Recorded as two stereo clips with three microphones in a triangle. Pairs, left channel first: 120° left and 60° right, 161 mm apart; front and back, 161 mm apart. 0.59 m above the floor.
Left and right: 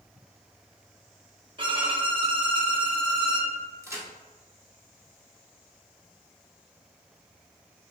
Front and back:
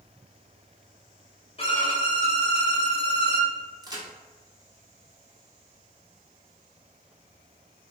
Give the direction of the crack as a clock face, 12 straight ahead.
4 o'clock.